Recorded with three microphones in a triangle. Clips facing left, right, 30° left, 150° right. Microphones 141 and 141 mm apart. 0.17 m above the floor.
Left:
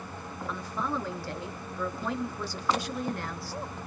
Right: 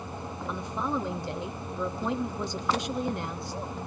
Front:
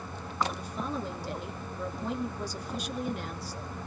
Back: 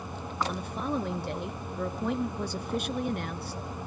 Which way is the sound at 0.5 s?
155° right.